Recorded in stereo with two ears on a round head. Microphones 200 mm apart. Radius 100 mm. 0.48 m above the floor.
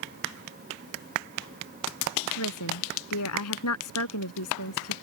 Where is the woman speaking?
80° left.